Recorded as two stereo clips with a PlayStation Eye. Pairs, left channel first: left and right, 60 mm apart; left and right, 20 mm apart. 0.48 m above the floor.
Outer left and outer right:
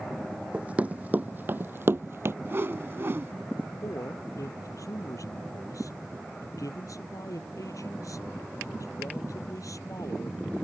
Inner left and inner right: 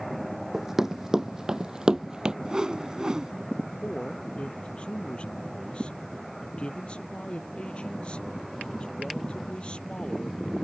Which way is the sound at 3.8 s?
75° left (ahead or behind).